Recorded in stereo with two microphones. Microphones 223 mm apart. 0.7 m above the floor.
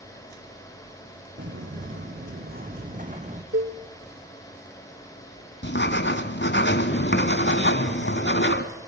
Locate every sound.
1.4 s footsteps: 55° right (ahead or behind), 2.5 m; by 3.4 s 30° right (ahead or behind), 2 m
3.5 s a cowbell: 70° right (ahead or behind), 1.7 m
5.6 s writing: 55° left (ahead or behind), 1.7 m